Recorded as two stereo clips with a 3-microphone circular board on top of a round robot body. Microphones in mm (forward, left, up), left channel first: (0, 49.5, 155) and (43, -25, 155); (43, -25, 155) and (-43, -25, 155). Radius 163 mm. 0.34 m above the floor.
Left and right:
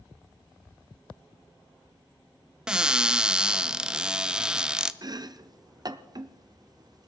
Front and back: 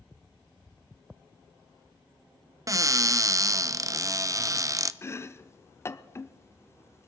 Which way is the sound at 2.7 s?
140° right.